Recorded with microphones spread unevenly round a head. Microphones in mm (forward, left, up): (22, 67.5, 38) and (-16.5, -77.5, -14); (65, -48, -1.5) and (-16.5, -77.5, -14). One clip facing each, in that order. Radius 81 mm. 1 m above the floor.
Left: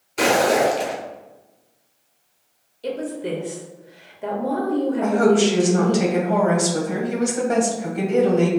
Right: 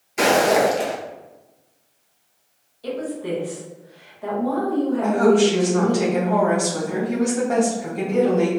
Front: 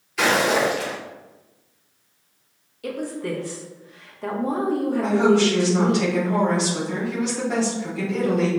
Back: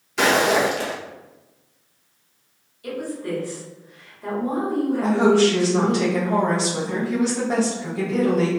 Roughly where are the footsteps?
Behind left.